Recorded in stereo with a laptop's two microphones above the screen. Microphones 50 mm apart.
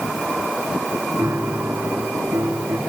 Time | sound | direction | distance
1.2 | a piano | 75° right (ahead or behind) | 3 m